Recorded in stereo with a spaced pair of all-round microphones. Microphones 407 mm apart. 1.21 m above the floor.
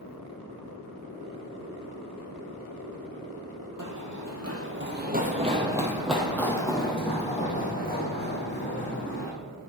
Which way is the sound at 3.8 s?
50° right (ahead or behind).